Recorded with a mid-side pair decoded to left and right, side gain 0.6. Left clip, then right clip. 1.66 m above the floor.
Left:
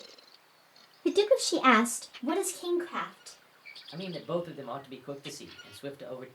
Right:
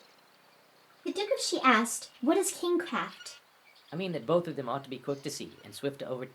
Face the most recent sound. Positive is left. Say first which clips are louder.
# right 6 dB
turn(degrees=-40)